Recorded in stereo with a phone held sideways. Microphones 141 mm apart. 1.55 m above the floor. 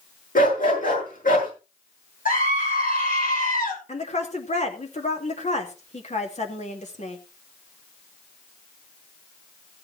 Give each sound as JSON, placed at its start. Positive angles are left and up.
{"t": 0.3, "sound": "a dog barking", "side_deg": 75, "distance_m": 7.5}
{"t": 2.2, "sound": "a scream", "side_deg": 75, "distance_m": 9.0}
{"t": 3.9, "sound": "a woman speaking", "side_deg": 55, "distance_m": 2.5}